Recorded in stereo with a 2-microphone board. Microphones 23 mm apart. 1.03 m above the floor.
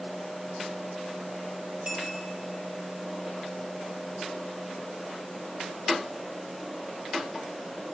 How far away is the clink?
About 1.3 m.